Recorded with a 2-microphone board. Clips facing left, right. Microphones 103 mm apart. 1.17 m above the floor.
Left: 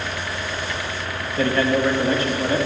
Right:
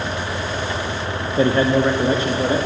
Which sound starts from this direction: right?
A man speaking, at 1.4 s.